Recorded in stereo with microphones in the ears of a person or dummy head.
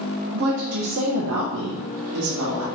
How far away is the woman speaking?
About 0.7 m.